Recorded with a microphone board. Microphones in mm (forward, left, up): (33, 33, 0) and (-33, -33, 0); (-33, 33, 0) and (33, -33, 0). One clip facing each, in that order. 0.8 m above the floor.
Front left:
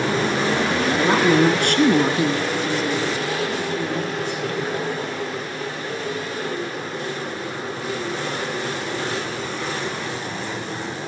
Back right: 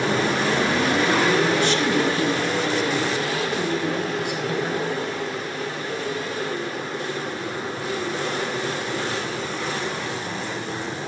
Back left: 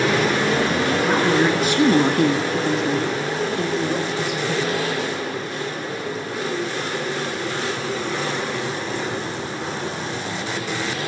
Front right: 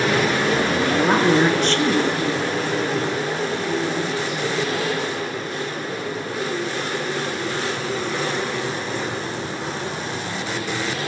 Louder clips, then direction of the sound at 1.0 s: Front left 6 dB, front right 2 dB; 10° left.